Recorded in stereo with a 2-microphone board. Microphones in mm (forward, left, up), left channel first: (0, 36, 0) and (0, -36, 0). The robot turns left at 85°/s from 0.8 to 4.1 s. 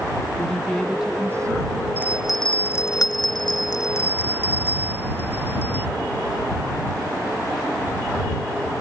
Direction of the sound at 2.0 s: 150° right.